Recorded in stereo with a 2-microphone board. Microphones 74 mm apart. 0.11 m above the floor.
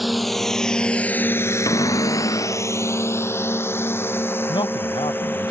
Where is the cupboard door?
55° left (ahead or behind).